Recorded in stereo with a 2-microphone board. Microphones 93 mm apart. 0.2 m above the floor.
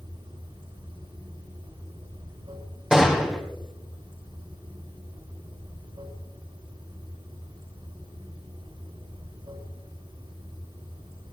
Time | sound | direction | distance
0.0 | running water | 85° right | 5.5 m
2.9 | a gunshot | 5° right (ahead or behind) | 2.5 m